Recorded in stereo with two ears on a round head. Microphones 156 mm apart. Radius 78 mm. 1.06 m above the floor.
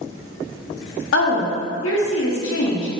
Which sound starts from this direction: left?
A woman speaking, at 1.1 s.